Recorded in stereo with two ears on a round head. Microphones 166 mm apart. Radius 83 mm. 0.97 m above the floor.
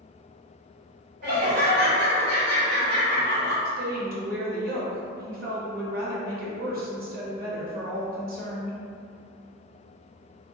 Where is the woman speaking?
55° right (ahead or behind), 1.0 m.